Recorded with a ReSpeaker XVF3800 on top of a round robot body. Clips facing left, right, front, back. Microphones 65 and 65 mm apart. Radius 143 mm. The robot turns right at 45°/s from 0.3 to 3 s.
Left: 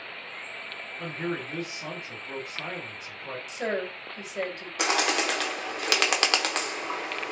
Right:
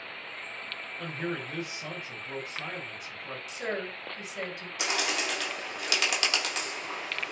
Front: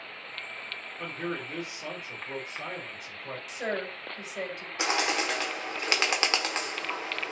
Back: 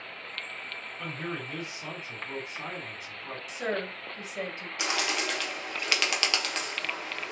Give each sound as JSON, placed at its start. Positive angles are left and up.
{"t": 1.0, "sound": "a man speaking", "azimuth_deg": 40, "distance_m": 1.9}
{"t": 3.5, "sound": "a woman speaking", "azimuth_deg": 85, "distance_m": 1.6}
{"t": 4.8, "sound": "a bird", "azimuth_deg": 60, "distance_m": 0.7}